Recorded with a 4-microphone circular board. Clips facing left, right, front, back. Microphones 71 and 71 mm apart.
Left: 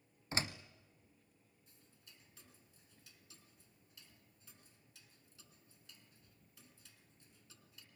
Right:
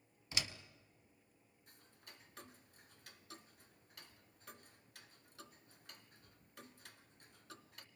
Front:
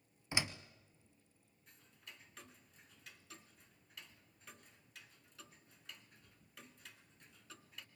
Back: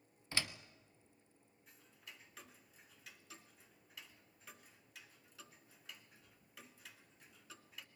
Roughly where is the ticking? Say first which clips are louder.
Right 7 dB, even; right.